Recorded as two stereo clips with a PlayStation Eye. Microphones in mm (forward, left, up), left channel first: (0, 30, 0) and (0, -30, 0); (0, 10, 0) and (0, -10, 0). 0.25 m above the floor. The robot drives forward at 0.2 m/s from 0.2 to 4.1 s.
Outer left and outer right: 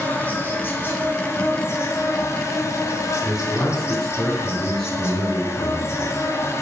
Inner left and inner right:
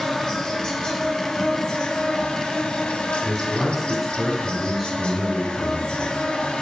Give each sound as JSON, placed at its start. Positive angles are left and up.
{"t": 0.0, "sound": "an insect", "side_deg": 35, "distance_m": 0.7}
{"t": 3.2, "sound": "a man speaking", "side_deg": 10, "distance_m": 1.9}